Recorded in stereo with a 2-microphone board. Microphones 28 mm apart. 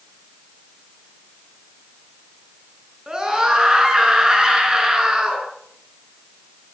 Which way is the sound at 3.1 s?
25° right (ahead or behind).